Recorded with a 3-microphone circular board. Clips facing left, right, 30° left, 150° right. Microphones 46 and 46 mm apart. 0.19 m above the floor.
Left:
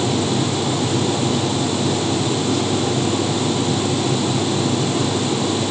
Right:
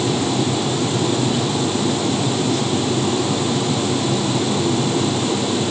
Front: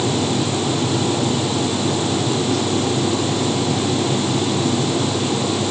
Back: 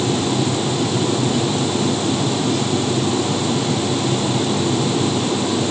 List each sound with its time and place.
Only background noise.